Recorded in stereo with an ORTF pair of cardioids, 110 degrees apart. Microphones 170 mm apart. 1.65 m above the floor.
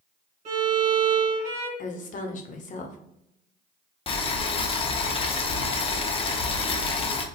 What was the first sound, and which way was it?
A violin, 40° right.